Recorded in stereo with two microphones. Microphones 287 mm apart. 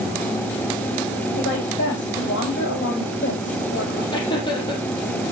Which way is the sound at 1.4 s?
40° left (ahead or behind).